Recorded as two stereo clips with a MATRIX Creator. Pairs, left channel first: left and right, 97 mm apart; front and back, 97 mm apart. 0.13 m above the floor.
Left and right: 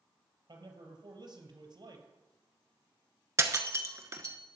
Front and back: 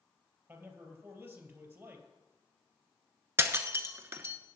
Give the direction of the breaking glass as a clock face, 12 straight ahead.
4 o'clock.